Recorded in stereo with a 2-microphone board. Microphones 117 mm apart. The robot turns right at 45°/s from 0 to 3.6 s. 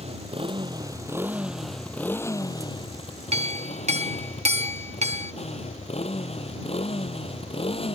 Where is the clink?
65° right (ahead or behind); by 5.3 s 75° right (ahead or behind).